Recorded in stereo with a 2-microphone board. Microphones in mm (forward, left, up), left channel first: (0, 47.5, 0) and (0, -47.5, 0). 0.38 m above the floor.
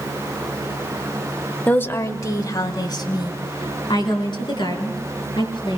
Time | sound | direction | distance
1.7 | a woman speaking | 15° left (ahead or behind) | 1.0 m